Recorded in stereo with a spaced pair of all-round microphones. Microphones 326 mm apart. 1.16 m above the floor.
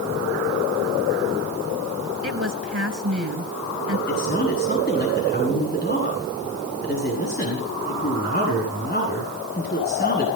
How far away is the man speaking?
About 8.5 m.